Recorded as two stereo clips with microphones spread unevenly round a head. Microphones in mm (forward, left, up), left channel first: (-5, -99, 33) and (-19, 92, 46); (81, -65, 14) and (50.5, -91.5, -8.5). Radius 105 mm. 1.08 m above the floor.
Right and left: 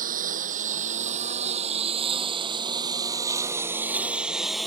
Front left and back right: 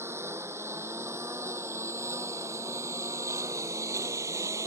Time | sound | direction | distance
0.0 | a lawn mower | 145° left | ?